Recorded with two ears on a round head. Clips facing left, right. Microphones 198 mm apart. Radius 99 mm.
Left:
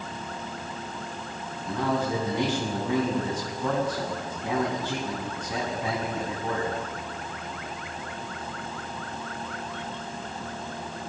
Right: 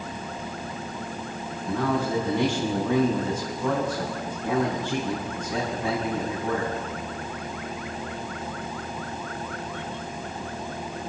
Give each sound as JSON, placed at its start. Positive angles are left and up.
{"t": 1.6, "sound": "a man speaking", "side_deg": 5, "distance_m": 8.5}